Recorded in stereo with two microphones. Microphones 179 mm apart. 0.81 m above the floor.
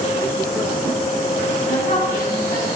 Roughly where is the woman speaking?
Left.